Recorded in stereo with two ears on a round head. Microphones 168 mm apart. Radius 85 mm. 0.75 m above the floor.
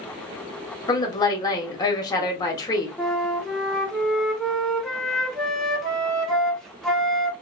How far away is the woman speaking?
About 1.2 m.